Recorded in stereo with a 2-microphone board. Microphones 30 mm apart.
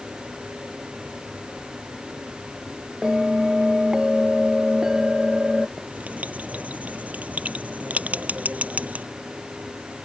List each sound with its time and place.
3.0 s a bell: 20° right (ahead or behind)
5.8 s writing: 55° right (ahead or behind)